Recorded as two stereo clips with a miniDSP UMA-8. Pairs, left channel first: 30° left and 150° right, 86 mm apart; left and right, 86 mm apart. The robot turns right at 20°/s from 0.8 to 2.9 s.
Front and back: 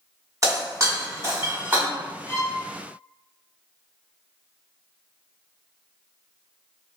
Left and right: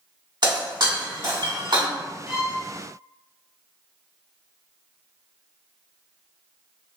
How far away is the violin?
About 0.9 m.